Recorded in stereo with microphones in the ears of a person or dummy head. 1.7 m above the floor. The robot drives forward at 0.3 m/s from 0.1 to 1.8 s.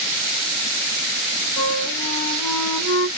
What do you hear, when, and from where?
1.6 s a flute: 20° left (ahead or behind), 1.8 m